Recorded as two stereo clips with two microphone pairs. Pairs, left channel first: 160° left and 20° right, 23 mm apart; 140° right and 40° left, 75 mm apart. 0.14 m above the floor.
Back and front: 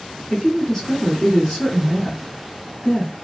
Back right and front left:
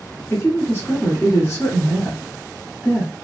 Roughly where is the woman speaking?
Behind right.